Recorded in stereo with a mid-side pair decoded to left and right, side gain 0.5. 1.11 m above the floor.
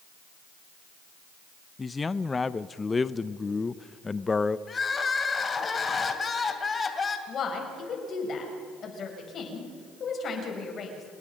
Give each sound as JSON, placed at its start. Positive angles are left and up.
{"t": 1.8, "sound": "a man speaking", "azimuth_deg": 25, "distance_m": 0.6}
{"t": 4.7, "sound": "crying", "azimuth_deg": 30, "distance_m": 2.5}
{"t": 7.3, "sound": "a woman speaking", "azimuth_deg": 50, "distance_m": 6.5}